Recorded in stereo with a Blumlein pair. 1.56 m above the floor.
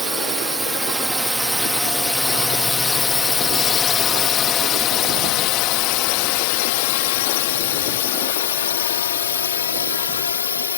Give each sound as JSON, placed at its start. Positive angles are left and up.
{"t": 0.0, "sound": "a drone", "azimuth_deg": -15}